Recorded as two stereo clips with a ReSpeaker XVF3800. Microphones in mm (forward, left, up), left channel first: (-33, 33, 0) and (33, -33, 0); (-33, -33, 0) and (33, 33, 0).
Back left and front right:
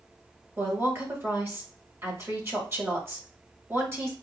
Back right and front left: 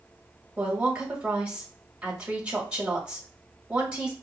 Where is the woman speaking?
25° right, 1.6 m.